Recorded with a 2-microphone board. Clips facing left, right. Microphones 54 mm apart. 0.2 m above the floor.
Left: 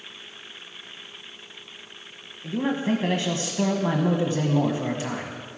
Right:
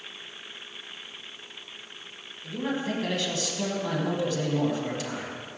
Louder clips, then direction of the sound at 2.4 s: Left 5 dB; 30° left (ahead or behind).